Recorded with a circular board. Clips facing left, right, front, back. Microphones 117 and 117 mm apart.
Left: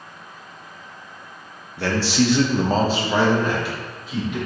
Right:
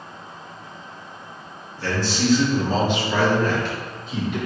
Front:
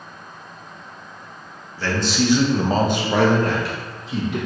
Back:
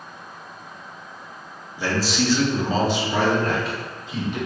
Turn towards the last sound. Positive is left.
turn(degrees=0)